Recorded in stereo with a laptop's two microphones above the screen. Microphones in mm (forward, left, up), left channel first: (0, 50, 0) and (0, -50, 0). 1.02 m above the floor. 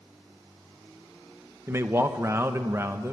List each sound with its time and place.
1.7 s a man speaking: 25° right (ahead or behind), 0.9 m